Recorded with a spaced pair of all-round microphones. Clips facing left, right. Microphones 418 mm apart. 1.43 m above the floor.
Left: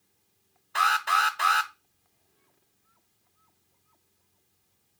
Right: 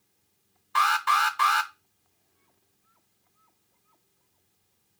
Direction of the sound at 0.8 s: 15° right (ahead or behind).